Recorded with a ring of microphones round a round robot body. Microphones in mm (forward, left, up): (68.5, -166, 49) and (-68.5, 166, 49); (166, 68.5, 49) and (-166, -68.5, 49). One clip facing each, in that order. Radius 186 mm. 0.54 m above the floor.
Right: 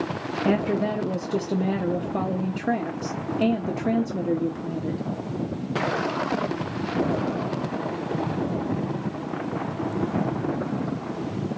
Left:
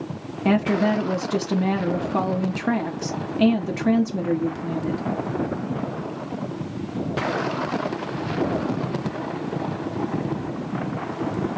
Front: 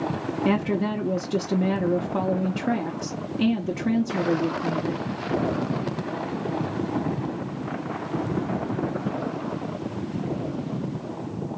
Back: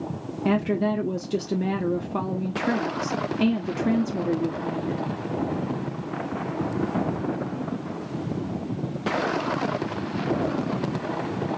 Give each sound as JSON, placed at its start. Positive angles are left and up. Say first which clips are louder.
{"t": 0.5, "sound": "a woman speaking", "louder": "left 3 dB, back 1 dB", "azimuth_deg": 115, "distance_m": 0.7}